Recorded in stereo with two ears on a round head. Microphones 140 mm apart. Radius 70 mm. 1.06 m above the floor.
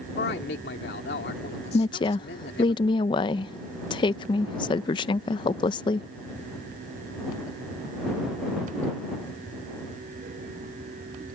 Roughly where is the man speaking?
Left.